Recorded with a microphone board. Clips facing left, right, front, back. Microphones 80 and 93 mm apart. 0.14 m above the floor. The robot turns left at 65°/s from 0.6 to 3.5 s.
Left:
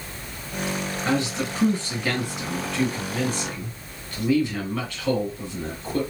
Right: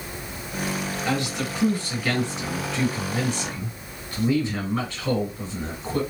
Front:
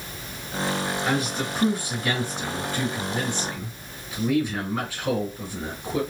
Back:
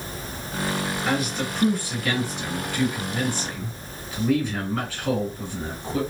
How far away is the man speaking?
About 1.7 m.